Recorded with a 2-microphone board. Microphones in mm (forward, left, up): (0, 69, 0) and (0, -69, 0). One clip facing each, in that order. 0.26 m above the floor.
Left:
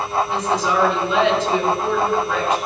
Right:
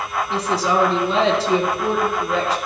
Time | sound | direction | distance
0.3 | a woman speaking | 35° right (ahead or behind) | 3.5 m